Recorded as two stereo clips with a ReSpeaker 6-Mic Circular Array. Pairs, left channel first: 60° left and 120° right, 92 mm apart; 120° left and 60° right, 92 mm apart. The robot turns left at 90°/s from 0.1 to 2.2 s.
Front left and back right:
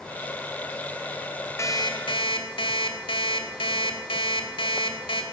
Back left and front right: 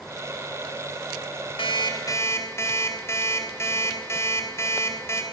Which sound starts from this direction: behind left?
An alarm clock, at 1.6 s.